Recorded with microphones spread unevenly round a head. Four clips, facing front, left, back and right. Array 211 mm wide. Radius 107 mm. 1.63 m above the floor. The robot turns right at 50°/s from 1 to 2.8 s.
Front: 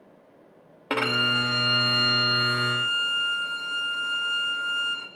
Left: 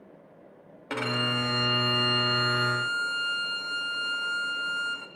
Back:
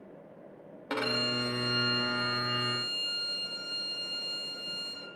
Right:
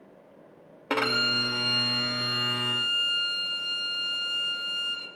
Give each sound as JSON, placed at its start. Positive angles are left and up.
{"t": 0.9, "sound": "a violin", "azimuth_deg": -45, "distance_m": 0.7}